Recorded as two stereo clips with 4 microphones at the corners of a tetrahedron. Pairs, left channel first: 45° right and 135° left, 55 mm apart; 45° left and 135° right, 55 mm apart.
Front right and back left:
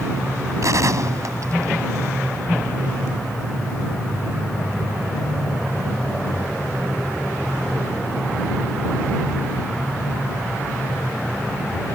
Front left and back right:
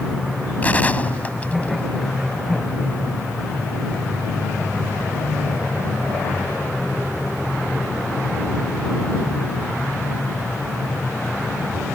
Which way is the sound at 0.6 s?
110° left.